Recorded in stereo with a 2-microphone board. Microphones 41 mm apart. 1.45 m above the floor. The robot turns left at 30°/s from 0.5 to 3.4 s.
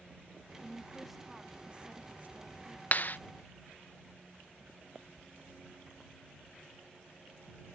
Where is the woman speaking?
10° left; by 2.8 s 55° right.